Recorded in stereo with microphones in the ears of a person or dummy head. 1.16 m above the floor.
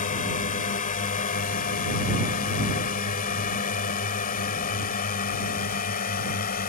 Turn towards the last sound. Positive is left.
turn(degrees=45)  # may be behind; listen again after turning